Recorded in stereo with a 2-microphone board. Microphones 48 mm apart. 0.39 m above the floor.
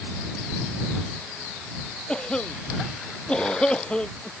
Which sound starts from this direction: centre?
A cough, at 2.1 s.